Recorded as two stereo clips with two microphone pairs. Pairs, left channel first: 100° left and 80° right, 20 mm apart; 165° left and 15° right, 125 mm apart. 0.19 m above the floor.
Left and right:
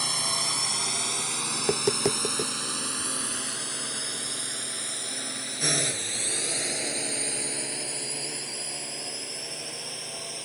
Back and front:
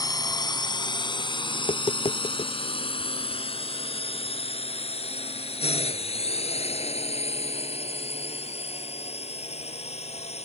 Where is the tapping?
155° right.